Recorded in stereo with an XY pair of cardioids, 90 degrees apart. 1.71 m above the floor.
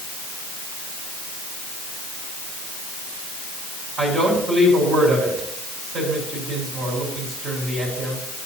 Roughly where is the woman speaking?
Ahead right.